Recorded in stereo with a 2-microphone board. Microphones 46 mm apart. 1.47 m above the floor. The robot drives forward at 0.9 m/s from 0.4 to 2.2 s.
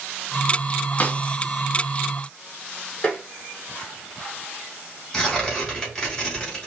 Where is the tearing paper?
15° left (ahead or behind), 3 m.